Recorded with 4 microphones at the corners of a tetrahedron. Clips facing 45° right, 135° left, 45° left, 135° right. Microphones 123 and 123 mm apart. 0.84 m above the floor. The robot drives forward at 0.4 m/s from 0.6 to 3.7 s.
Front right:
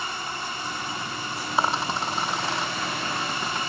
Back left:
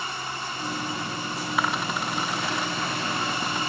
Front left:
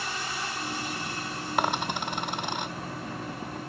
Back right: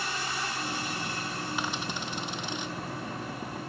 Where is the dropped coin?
15° left.